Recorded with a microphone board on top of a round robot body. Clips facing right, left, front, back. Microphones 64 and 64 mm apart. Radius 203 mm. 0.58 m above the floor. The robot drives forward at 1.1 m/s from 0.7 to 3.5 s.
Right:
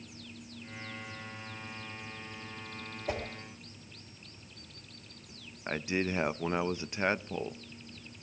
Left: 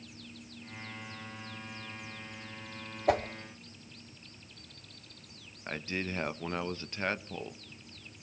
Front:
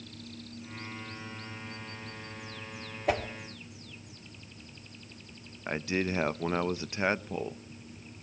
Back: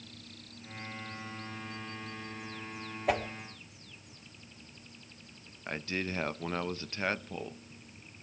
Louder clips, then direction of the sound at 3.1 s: Left 8 dB, front 1 dB; 90° left.